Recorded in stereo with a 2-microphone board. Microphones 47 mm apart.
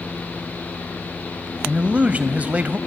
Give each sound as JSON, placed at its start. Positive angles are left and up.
{"t": 1.6, "sound": "a man speaking", "side_deg": -35, "distance_m": 1.1}